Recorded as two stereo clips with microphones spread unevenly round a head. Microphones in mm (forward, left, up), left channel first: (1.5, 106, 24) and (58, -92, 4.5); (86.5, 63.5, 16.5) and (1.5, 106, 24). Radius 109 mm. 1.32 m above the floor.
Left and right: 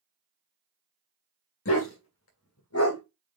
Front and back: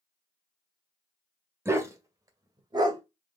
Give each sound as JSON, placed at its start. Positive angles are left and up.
{"t": 1.6, "sound": "a dog barking", "azimuth_deg": 95, "distance_m": 2.0}